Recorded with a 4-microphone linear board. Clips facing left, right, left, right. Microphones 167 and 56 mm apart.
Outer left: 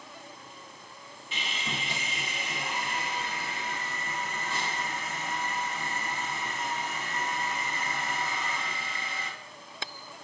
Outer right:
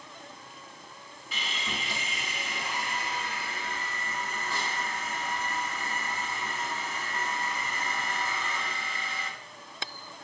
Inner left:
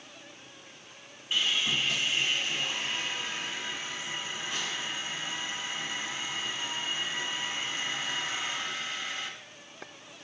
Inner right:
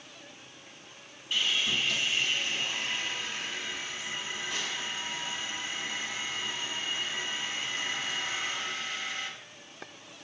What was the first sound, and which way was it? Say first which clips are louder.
Sawing: even, even; 25° left (ahead or behind).